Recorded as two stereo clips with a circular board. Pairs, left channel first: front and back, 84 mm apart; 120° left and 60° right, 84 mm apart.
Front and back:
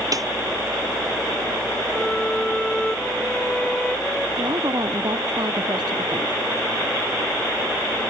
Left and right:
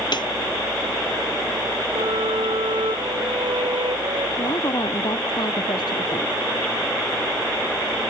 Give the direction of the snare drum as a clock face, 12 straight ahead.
7 o'clock.